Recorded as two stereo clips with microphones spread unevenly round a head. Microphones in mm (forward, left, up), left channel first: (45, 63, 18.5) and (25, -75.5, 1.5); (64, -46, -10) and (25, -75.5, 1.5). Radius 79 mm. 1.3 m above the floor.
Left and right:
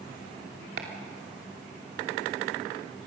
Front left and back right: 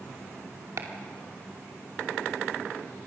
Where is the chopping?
135° right, 2.5 m.